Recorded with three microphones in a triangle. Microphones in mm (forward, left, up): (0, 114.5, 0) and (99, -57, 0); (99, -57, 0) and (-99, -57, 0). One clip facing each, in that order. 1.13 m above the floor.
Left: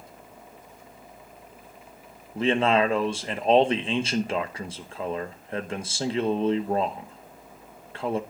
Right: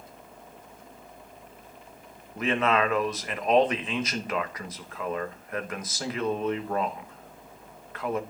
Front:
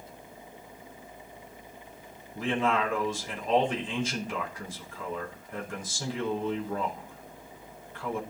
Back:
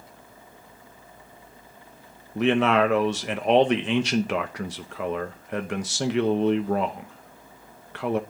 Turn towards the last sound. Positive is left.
turn(degrees=180)